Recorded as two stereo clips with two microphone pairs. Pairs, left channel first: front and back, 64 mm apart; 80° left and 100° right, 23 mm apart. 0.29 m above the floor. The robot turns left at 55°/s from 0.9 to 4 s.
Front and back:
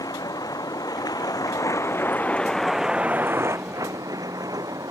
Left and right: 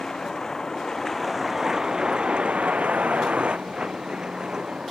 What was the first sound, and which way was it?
A vehicle, 10° left.